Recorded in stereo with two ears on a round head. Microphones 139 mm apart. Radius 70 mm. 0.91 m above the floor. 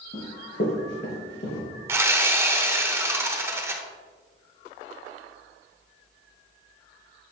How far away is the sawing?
About 0.7 m.